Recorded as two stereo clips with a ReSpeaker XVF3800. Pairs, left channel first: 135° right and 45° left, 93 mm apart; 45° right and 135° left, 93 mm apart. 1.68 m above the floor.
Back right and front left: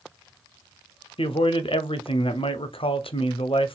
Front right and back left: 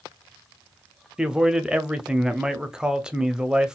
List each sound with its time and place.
1.2 s a man speaking: 145° right, 0.6 m